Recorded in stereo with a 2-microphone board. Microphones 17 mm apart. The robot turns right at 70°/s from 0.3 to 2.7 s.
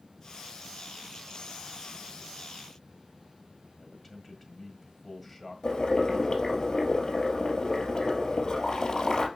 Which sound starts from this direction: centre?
A man speaking, at 3.8 s.